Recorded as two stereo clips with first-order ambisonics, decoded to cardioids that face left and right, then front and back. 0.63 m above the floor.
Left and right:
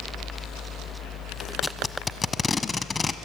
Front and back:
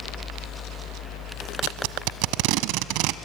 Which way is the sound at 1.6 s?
165° left.